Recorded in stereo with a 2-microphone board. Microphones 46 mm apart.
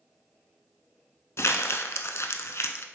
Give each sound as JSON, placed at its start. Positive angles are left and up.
{"t": 1.4, "sound": "crumpling", "side_deg": 75, "distance_m": 0.6}